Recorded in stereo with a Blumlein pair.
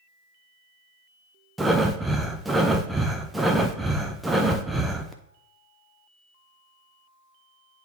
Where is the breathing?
5° right, 0.8 m.